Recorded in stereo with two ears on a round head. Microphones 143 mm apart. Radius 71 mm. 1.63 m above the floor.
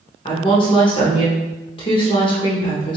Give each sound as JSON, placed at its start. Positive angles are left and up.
{"t": 0.2, "sound": "a woman speaking", "side_deg": 30, "distance_m": 0.8}